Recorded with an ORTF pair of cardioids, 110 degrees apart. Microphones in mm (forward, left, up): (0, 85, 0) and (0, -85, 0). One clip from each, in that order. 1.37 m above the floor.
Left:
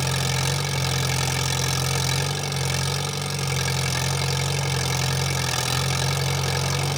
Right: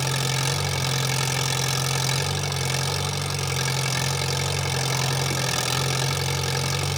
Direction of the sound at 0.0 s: 5° right.